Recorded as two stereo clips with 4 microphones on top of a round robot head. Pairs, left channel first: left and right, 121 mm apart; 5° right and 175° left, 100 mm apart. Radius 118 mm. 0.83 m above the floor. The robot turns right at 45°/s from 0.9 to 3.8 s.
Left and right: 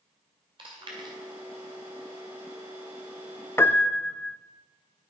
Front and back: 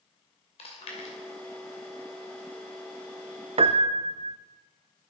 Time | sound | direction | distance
0.6 | chewing | 35° right | 2.5 m
3.6 | a piano | 160° left | 0.6 m